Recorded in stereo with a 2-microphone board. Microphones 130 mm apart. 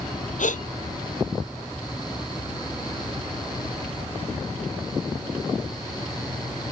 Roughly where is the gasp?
Left.